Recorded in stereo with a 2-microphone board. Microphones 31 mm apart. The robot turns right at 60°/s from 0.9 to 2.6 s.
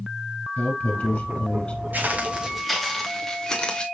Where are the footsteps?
65° right (ahead or behind), 2 m; by 3.9 s 30° left (ahead or behind), 2.5 m.